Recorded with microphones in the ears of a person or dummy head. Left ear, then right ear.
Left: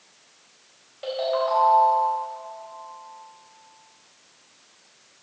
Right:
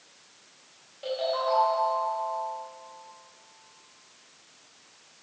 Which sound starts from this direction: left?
A ringtone, at 1.0 s.